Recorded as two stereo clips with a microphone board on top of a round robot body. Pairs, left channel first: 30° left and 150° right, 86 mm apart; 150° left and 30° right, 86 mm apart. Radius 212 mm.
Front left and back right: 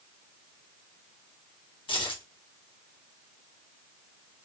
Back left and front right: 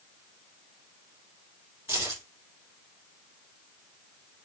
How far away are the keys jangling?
About 1.9 m.